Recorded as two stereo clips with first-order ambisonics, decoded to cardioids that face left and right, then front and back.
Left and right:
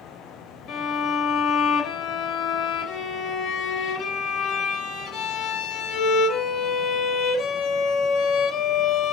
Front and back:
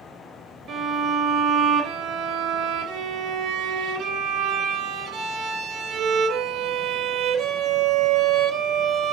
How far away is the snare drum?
I don't hear a snare drum.